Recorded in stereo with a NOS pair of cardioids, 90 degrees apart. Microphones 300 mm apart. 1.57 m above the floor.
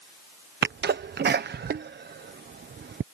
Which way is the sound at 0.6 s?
35° right.